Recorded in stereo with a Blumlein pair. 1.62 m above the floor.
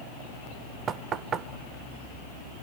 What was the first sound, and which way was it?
Knocking, 25° right.